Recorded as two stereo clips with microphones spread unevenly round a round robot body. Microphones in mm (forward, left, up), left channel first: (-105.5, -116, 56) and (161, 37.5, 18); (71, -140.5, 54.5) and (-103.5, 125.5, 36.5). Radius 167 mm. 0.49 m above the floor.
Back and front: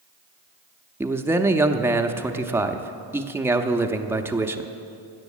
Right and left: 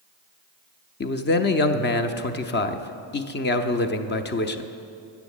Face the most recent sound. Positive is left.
turn(degrees=-35)